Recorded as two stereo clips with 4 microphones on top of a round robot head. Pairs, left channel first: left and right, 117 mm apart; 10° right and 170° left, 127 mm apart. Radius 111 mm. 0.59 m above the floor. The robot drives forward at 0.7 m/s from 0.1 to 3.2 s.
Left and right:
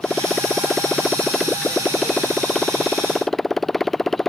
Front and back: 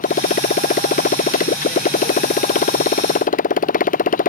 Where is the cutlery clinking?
No cutlery clinking in this recording.